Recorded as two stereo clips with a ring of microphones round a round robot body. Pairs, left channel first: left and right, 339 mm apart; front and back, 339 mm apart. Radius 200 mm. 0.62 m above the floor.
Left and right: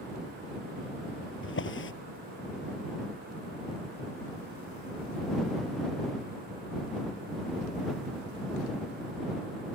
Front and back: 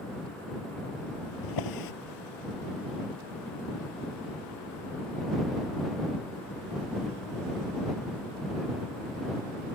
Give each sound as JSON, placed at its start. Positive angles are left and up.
{"t": 1.4, "sound": "a drawer", "azimuth_deg": 35}